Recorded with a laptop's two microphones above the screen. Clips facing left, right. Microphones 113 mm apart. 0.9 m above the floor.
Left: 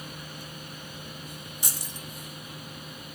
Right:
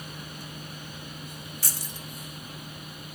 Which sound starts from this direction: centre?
Keys jangling, at 1.6 s.